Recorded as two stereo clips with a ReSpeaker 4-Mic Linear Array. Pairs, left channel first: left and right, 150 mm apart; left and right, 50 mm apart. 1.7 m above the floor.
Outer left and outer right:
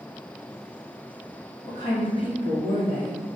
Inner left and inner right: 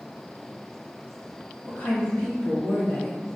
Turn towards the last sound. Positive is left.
turn(degrees=70)  # may be behind; listen again after turning